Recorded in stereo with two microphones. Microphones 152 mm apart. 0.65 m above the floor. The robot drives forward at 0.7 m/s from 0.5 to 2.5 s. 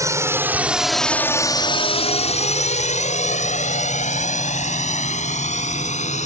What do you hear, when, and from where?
0.0 s a drone: 20° right (ahead or behind); by 6.3 s 50° left (ahead or behind)